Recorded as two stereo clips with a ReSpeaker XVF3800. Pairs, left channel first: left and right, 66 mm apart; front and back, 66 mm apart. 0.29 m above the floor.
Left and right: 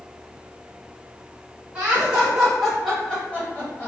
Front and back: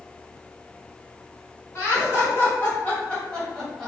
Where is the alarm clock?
I don't hear an alarm clock.